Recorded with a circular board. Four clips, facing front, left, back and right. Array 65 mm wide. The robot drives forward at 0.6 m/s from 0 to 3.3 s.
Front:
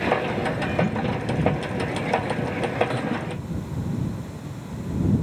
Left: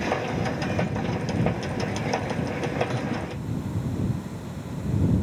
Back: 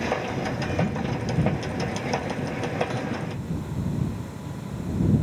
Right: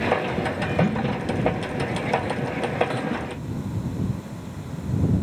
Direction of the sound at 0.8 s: 80° right.